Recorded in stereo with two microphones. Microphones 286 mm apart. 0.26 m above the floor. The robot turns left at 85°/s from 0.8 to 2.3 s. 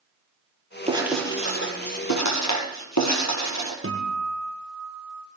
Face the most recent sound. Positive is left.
turn(degrees=-45)  # may be behind; listen again after turning